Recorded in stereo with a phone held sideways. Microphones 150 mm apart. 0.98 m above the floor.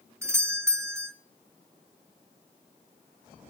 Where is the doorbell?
15° right (ahead or behind), 0.9 m.